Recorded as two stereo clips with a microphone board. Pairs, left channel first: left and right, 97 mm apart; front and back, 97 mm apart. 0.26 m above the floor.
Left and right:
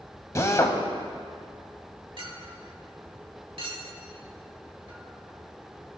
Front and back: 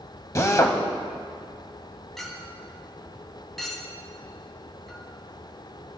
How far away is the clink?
About 1.1 m.